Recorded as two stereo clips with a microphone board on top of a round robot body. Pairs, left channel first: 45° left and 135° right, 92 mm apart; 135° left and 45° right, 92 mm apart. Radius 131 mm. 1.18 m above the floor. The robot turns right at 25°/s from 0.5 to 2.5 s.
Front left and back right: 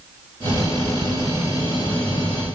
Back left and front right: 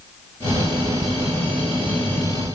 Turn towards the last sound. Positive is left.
No sound to turn to.